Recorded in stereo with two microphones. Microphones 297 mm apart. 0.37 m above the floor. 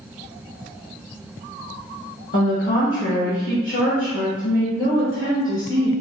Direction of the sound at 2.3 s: 45° left (ahead or behind).